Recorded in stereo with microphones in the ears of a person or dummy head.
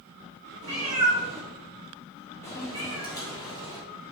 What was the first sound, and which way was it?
A cat meowing, 20° right (ahead or behind).